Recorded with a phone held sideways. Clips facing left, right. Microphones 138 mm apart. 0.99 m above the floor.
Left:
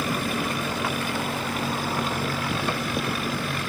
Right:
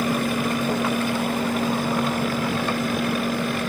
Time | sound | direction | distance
0.0 | a fan | 50° right (ahead or behind) | ?